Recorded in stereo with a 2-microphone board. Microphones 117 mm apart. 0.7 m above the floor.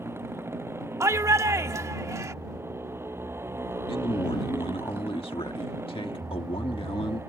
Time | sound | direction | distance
0.0 | a motorcycle | 20° right (ahead or behind) | ?
1.0 | a shout | 25° right (ahead or behind) | ?
3.9 | a man speaking | 50° left (ahead or behind) | ?